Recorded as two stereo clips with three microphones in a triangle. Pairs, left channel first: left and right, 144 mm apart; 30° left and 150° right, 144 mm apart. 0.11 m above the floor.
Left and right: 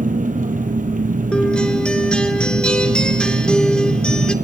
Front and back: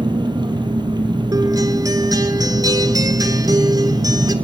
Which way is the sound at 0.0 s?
95° right.